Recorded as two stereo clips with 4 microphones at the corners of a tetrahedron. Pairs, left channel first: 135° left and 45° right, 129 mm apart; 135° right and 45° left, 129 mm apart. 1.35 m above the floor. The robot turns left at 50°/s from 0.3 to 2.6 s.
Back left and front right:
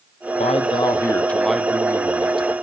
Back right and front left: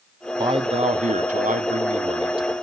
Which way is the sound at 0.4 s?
100° left.